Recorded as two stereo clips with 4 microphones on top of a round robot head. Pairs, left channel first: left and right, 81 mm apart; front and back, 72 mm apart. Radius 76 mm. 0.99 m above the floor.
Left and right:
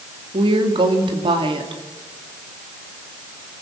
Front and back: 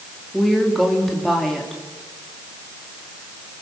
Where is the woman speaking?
85° right, 2.5 m.